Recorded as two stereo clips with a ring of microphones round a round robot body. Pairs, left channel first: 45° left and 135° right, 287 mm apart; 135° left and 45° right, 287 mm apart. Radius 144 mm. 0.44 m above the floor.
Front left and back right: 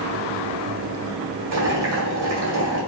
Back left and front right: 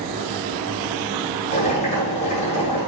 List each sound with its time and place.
1.5 s boiling: 160° right, 1.9 m